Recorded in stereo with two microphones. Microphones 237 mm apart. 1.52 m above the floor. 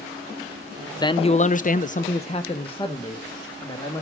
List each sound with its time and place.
1.0 s a man speaking: 15° left (ahead or behind), 0.7 m